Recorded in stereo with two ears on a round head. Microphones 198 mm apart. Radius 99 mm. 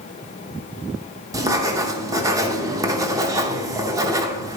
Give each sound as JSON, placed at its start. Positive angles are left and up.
{"t": 1.3, "sound": "writing", "side_deg": -15, "distance_m": 0.7}